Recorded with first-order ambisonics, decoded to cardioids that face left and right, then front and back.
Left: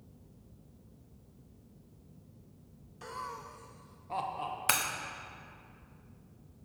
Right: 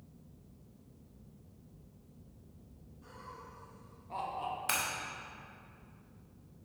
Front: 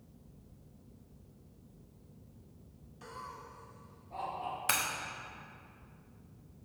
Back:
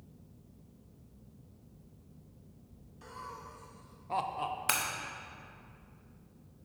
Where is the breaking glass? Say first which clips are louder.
Left 4 dB, even; 105° left, 0.6 m.